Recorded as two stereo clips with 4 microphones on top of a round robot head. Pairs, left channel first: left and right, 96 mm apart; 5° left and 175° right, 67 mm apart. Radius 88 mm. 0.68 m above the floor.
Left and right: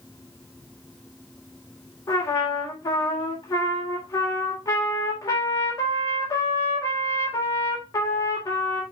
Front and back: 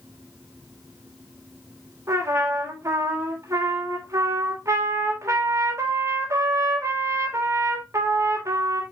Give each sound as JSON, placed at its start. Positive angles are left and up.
{"t": 2.1, "sound": "a trumpet", "azimuth_deg": 145, "distance_m": 3.5}